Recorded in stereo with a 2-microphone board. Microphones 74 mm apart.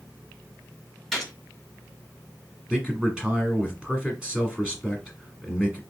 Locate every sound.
1.1 s a gunshot: 5° left (ahead or behind), 1.2 m
2.7 s a man speaking: 10° right (ahead or behind), 1.3 m